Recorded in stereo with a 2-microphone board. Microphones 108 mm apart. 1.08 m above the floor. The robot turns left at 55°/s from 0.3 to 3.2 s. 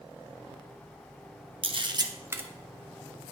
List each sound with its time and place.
1.6 s a camera shutter: 55° right (ahead or behind), 0.6 m; by 2.4 s 20° right (ahead or behind), 0.6 m